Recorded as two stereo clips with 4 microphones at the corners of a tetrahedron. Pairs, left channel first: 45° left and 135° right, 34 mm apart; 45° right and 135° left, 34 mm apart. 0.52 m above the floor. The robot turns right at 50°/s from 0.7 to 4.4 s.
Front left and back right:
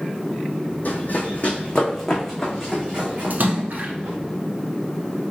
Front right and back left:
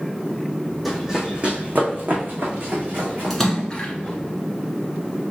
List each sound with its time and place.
0.8 s running footsteps: 50° left, 1.2 m; by 4.2 s 125° right, 3 m
3.3 s a splash: 130° right, 1.1 m; by 3.9 s 100° right, 1.1 m